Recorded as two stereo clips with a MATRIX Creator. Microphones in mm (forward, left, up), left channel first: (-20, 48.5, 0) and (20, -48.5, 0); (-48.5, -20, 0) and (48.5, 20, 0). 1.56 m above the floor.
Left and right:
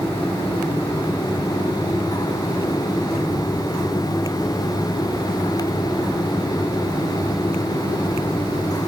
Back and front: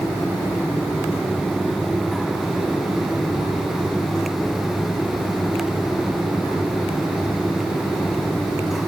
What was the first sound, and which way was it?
Only background noise.